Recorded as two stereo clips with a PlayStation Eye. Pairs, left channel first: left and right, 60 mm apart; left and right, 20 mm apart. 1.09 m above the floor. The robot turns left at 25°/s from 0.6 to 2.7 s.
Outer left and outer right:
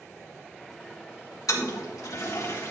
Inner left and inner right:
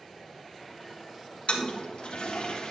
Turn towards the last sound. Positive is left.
turn(degrees=50)  # may be behind; listen again after turning